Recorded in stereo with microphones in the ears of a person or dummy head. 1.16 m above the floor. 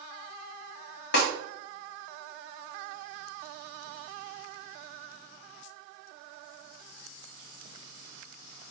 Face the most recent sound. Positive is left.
turn(degrees=55)  # may be behind; listen again after turning